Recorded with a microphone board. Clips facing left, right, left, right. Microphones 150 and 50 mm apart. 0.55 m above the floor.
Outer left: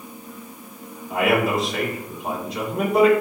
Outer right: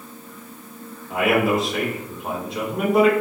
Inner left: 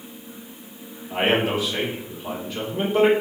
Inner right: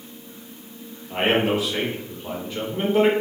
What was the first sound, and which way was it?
A man speaking, centre (ahead or behind).